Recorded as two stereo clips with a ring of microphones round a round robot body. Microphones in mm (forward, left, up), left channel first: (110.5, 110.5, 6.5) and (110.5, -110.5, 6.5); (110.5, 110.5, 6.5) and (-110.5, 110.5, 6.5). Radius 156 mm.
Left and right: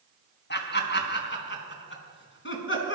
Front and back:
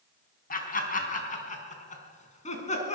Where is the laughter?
50° left, 4 m; by 3.0 s 60° left, 5.5 m.